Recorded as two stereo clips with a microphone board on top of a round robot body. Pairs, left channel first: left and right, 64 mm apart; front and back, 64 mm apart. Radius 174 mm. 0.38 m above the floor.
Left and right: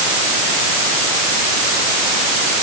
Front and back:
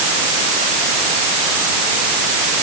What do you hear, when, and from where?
Only background noise.